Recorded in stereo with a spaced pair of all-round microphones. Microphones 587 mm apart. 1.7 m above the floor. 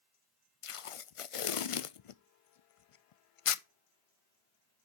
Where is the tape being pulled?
60° left (ahead or behind), 0.5 m.